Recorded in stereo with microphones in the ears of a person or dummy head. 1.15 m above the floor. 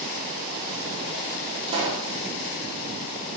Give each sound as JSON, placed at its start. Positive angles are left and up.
{"t": 1.7, "sound": "a pop", "side_deg": -30, "distance_m": 0.6}